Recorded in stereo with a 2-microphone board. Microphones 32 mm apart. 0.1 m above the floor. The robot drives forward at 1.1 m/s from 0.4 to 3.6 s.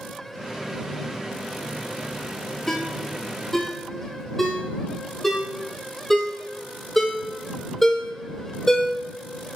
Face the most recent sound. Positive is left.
turn(degrees=10)  # may be behind; listen again after turning